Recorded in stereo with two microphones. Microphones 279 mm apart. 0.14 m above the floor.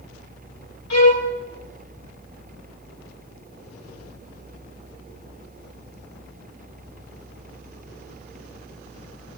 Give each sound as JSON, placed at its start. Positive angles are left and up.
{"t": 0.9, "sound": "a violin", "side_deg": 80, "distance_m": 5.0}